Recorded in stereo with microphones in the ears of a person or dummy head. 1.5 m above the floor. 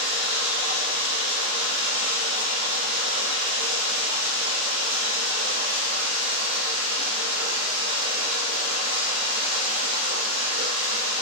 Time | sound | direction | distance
0.0 | running water | 65° right (ahead or behind) | 0.8 m